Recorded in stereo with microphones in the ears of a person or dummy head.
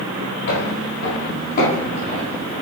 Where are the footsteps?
60° left (ahead or behind), 2.5 m; by 2.6 s 30° left (ahead or behind), 3 m.